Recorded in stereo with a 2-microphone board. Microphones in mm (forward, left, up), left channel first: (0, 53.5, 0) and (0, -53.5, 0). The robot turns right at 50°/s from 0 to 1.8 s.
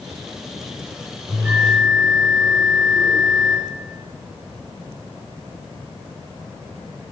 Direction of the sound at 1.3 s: 25° right (ahead or behind).